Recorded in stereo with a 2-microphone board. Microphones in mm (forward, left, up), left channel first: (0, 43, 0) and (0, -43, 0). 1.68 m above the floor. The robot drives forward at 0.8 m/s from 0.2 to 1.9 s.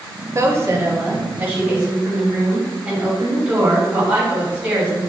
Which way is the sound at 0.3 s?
35° right (ahead or behind).